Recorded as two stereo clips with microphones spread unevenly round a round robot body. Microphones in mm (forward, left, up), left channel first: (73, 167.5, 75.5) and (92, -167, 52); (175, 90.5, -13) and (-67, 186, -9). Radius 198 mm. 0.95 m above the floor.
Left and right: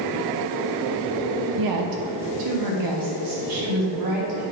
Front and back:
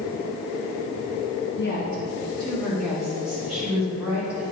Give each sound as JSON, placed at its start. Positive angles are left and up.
{"t": 1.6, "sound": "a woman speaking", "azimuth_deg": -80, "distance_m": 0.9}